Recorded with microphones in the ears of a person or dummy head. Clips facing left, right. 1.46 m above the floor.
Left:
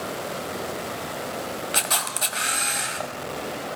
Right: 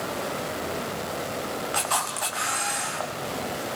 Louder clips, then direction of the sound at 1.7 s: Right 1 dB; 25° left (ahead or behind).